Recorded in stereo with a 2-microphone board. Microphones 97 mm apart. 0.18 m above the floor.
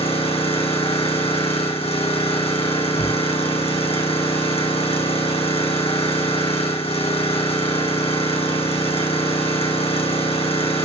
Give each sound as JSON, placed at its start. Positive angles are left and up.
{"t": 0.0, "sound": "an engine running", "side_deg": 75, "distance_m": 4.0}
{"t": 3.0, "sound": "a shout", "side_deg": 70, "distance_m": 5.0}